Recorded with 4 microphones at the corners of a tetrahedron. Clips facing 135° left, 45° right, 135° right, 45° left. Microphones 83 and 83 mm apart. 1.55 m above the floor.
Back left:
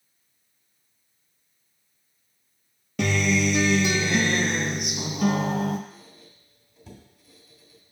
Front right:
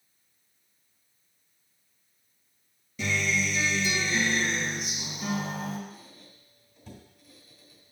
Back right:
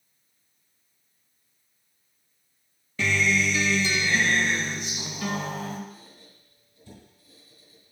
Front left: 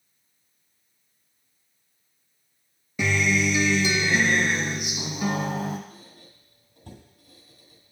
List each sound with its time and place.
3.0 s a guitar: 120° left, 0.5 m
5.9 s a squeak: 50° left, 2 m